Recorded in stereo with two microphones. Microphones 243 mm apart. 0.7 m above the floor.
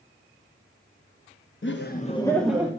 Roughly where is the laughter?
Left.